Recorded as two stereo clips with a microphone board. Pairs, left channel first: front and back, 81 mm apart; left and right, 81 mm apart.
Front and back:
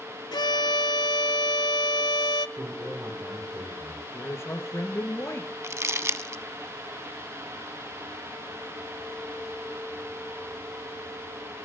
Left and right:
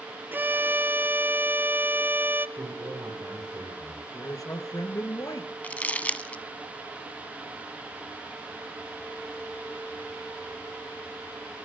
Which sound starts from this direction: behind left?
Crumpling, at 5.6 s.